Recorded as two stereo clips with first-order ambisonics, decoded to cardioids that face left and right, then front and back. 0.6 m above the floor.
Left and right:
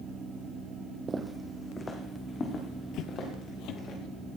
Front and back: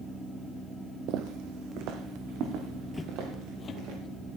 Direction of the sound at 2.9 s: 85° left.